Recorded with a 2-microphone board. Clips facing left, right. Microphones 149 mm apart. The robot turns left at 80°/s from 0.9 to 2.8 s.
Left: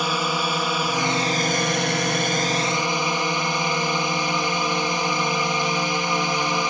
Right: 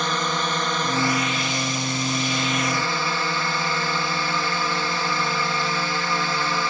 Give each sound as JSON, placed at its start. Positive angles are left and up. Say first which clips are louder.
{"t": 0.0, "sound": "a drone", "louder": "left 1 dB", "azimuth_deg": 170}